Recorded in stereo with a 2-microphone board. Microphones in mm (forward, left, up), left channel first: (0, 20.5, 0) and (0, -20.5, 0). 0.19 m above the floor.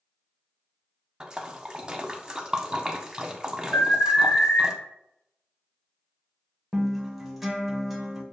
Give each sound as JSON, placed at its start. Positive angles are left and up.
{"t": 1.2, "sound": "a splash", "side_deg": -20, "distance_m": 0.5}
{"t": 3.7, "sound": "an alarm", "side_deg": 45, "distance_m": 2.0}
{"t": 6.7, "sound": "a guitar", "side_deg": -10, "distance_m": 0.8}